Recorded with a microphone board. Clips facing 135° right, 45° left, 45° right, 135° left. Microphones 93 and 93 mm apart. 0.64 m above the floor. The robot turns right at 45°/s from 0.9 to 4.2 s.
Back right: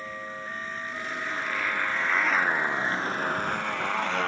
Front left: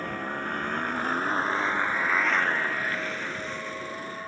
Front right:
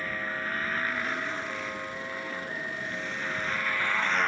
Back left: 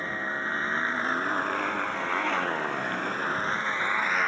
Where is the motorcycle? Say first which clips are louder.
Front left 5 dB, back left 2 dB; 75° left; by 4.3 s 140° right.